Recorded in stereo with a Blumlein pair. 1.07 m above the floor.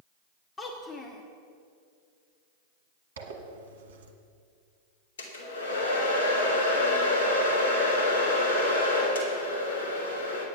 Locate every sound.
0.6 s a child speaking: 15° left, 1.0 m
3.2 s a zipper: 60° right, 1.3 m
5.2 s a hair dryer: 60° left, 2.5 m